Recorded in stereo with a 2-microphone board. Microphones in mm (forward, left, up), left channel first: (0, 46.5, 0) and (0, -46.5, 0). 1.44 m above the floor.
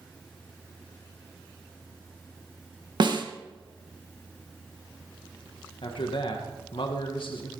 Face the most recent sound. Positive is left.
turn(degrees=60)  # may be behind; listen again after turning